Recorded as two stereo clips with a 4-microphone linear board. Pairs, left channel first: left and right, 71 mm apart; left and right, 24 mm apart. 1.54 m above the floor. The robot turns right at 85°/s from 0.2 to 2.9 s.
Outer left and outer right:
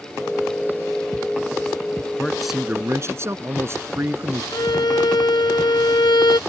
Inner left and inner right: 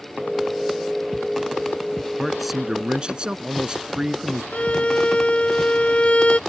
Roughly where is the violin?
Left.